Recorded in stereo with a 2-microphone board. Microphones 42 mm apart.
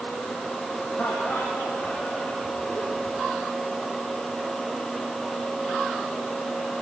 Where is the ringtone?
I don't hear a ringtone.